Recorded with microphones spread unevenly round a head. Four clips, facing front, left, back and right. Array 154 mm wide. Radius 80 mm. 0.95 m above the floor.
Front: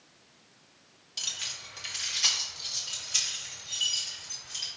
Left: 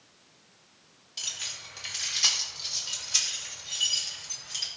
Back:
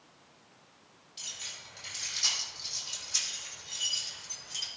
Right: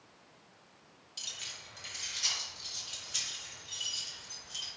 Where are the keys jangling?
40° left, 1.7 m; by 4.7 s 90° left, 4.5 m.